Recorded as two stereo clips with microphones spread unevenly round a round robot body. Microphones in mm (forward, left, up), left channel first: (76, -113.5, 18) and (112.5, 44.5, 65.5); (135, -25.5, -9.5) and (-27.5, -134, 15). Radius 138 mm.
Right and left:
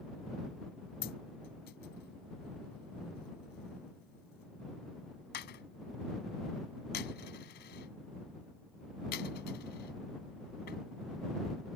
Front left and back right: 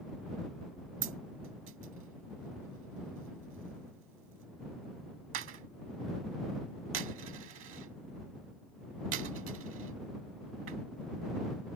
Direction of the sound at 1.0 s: 135° right.